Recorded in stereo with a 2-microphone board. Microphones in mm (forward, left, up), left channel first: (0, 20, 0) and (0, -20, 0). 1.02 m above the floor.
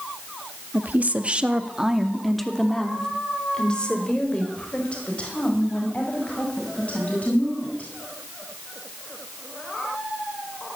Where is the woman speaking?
50° right (ahead or behind), 1.9 m; by 7.9 s 40° left (ahead or behind), 9 m.